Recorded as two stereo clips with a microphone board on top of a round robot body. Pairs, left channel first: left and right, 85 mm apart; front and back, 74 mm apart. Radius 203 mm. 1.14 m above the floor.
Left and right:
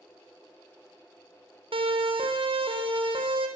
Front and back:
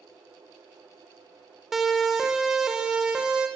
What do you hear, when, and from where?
1.7 s a siren: 95° right, 5 m; by 3.5 s 105° right, 6.5 m